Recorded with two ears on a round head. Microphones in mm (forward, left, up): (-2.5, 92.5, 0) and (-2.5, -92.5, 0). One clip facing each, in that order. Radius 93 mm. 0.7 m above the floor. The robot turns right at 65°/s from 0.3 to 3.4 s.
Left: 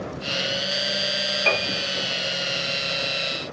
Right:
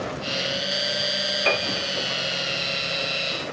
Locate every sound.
1.5 s a piano: 10° right (ahead or behind), 0.8 m; by 1.9 s 35° right (ahead or behind), 0.8 m